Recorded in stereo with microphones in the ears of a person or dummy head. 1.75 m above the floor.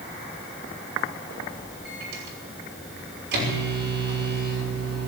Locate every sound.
1.9 s a microwave: 65° right (ahead or behind), 5.5 m